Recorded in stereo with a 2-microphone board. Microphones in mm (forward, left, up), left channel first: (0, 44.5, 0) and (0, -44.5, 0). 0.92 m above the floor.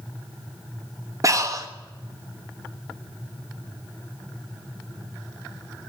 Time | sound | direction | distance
1.2 | breathing | 35° right (ahead or behind) | 0.9 m